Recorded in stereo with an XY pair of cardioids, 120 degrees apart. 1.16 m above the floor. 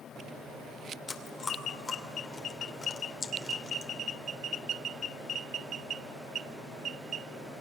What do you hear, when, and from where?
1.1 s chewing: 30° left, 2.5 m